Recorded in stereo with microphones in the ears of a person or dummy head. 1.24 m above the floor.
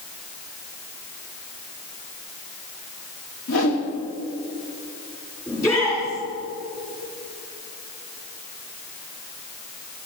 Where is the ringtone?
I don't hear a ringtone.